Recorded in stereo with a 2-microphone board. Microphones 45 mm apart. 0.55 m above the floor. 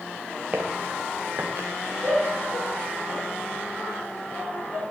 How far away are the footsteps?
About 4 m.